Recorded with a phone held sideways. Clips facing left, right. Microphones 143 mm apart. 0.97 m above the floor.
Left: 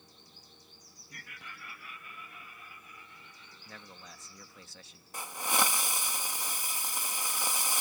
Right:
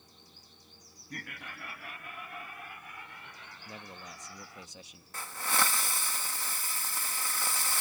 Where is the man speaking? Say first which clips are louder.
Right 4 dB; 20° right (ahead or behind).